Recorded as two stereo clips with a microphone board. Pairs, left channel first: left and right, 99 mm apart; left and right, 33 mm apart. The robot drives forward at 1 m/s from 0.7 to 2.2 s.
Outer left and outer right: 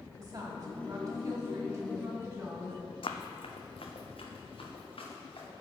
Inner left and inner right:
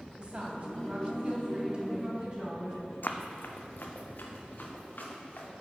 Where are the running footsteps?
60° left (ahead or behind), 0.5 m; by 5.5 s 70° left (ahead or behind), 2.5 m.